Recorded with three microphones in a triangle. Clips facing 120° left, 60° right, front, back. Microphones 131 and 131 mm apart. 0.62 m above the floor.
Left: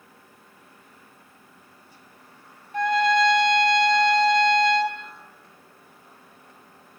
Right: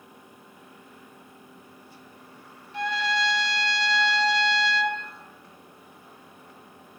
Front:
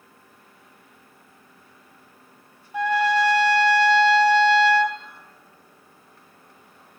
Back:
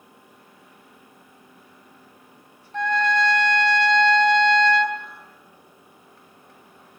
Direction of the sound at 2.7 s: 80° left.